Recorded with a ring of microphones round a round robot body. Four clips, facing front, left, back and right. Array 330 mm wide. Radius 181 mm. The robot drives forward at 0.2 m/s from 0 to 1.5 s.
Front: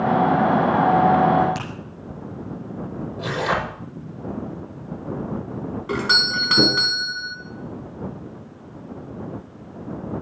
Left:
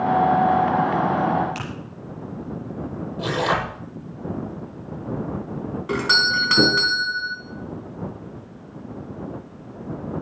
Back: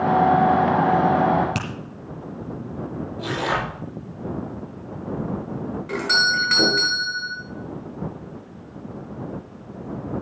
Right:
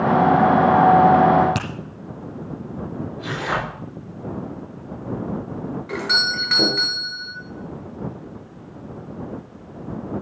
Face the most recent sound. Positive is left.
turn(degrees=60)